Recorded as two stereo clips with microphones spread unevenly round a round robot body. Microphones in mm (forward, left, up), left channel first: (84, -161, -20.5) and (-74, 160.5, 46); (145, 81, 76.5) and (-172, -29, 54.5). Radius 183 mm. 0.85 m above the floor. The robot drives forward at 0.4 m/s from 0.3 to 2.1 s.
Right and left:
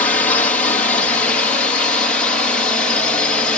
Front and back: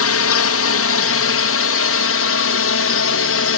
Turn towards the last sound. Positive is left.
turn(degrees=10)